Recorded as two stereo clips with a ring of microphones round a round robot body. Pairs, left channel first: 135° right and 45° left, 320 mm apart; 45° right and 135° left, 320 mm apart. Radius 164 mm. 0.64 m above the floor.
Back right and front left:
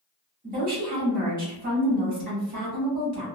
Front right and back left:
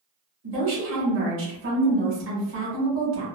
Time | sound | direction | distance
0.4 | a woman speaking | 100° left | 1.6 m